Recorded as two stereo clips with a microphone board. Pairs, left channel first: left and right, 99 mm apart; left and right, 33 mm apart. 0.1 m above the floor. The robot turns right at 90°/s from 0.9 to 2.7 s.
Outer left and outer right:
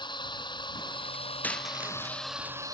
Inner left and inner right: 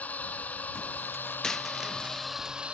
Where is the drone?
55° left; by 2.8 s 140° right.